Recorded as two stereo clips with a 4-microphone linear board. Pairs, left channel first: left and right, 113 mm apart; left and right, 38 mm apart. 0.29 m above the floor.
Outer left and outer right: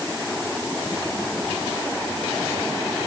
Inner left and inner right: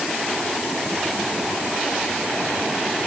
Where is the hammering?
No hammering in this recording.